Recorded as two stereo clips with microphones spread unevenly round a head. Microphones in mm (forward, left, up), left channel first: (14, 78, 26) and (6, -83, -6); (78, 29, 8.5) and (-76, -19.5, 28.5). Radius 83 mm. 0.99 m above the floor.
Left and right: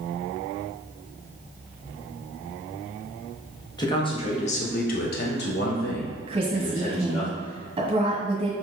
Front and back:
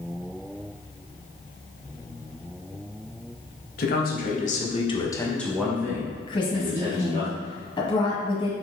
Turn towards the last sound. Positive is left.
turn(degrees=-40)